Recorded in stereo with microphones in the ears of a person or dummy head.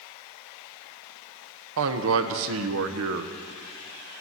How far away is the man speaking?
About 1.1 m.